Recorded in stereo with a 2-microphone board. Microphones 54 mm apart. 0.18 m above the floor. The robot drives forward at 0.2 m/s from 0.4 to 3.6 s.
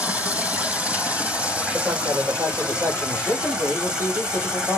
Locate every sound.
0.0 s running water: 30° right (ahead or behind), 1.0 m; by 4.8 s 20° right (ahead or behind), 1.6 m
1.7 s a man speaking: 65° right (ahead or behind), 5 m